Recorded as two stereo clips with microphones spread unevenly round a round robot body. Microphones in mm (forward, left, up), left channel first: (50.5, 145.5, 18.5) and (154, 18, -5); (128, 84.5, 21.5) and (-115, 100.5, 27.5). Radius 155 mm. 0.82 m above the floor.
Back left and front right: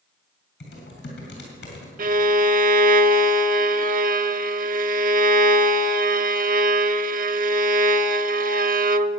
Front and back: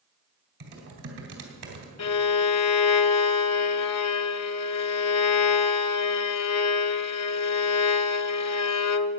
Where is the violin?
20° right, 0.5 m.